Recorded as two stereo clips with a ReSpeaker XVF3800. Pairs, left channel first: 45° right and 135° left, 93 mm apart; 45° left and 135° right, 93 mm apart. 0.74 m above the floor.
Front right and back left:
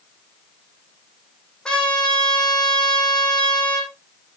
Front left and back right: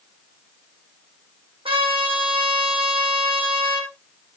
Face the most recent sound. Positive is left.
turn(degrees=-125)